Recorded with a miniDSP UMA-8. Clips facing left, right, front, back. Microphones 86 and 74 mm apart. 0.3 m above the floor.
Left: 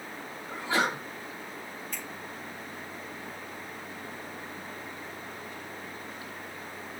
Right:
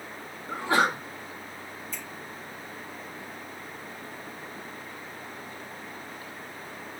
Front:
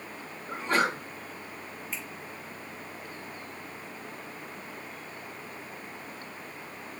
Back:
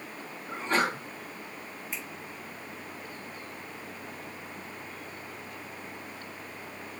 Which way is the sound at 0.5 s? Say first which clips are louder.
Right 4 dB, front 1 dB; 85° right.